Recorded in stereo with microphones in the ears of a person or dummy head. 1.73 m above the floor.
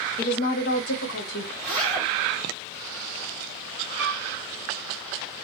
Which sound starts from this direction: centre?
A zipper, at 1.6 s.